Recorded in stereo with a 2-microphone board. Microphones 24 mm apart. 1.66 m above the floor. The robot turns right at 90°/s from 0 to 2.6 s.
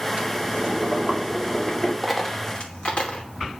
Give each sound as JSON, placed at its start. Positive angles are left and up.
{"t": 0.2, "sound": "boiling", "azimuth_deg": -120, "distance_m": 4.0}
{"t": 2.0, "sound": "a dropped coin", "side_deg": 0, "distance_m": 2.5}